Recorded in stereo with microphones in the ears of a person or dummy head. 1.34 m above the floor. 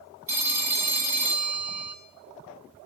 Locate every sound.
0.3 s a phone ringing: 15° right (ahead or behind), 0.9 m